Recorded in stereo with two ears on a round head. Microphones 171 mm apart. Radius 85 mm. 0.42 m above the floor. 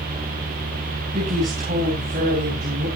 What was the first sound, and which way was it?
A woman speaking, 35° right (ahead or behind).